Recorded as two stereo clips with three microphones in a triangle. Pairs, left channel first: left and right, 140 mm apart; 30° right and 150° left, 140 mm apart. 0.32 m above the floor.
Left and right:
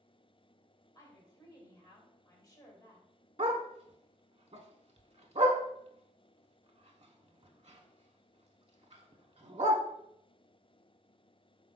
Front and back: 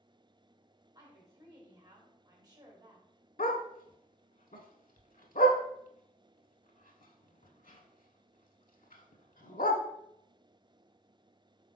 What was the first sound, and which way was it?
A woman speaking, 125° left.